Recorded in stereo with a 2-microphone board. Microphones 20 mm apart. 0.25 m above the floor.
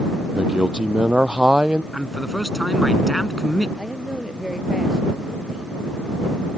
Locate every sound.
0.3 s a man speaking: 50° right (ahead or behind)
1.9 s a man speaking: 5° left (ahead or behind)
3.8 s a woman speaking: 20° right (ahead or behind)